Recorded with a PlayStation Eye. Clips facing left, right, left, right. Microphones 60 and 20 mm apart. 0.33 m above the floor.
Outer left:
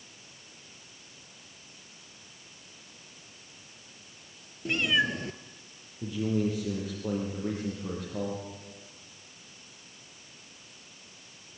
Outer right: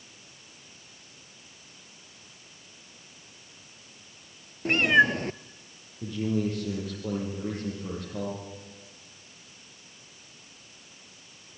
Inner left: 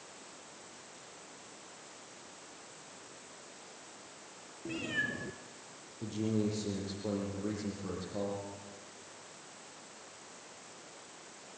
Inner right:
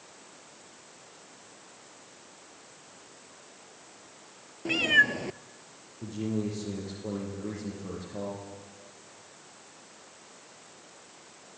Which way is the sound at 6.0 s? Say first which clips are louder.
Even, inner right 1 dB; centre (ahead or behind).